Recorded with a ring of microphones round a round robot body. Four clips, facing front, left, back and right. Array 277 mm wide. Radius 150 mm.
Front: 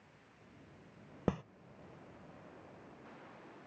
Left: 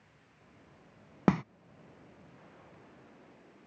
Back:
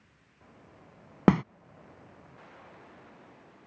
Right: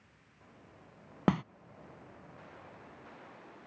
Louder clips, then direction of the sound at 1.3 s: Left 2 dB, back 14 dB; 170° left.